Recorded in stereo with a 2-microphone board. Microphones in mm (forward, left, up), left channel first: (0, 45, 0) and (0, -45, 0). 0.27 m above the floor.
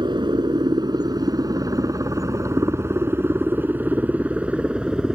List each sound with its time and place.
0.0 s a helicopter: 55° right (ahead or behind); by 5.2 s 10° right (ahead or behind)